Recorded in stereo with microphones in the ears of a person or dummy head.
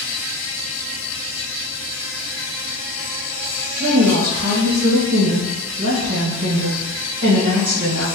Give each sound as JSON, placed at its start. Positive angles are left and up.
{"t": 0.0, "sound": "an insect", "side_deg": -5, "distance_m": 1.5}
{"t": 3.8, "sound": "a woman speaking", "side_deg": -65, "distance_m": 1.5}